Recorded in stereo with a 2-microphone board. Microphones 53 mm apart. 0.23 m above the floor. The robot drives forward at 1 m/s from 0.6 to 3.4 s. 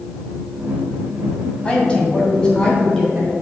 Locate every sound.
1.6 s a woman speaking: 20° left (ahead or behind), 1.6 m; by 3.3 s 10° left (ahead or behind), 3 m